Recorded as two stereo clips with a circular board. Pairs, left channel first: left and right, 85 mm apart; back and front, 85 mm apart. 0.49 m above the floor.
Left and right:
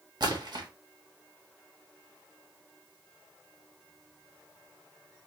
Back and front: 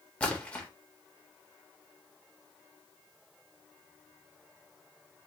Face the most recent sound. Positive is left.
turn(degrees=-105)